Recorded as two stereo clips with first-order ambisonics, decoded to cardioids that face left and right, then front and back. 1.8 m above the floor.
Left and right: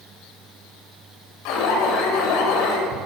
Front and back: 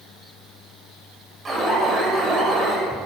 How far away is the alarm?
About 8 m.